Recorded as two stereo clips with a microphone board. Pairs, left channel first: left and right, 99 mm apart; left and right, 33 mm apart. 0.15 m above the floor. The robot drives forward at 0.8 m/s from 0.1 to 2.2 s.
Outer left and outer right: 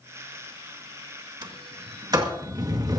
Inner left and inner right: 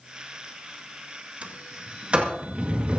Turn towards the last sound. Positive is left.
turn(degrees=-40)  # may be behind; listen again after turning